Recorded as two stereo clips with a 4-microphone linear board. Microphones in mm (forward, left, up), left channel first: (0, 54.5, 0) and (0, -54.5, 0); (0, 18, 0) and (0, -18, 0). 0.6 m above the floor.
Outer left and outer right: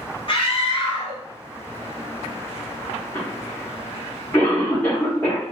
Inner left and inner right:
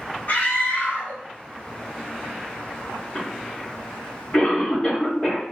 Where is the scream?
50° left (ahead or behind), 1.2 m.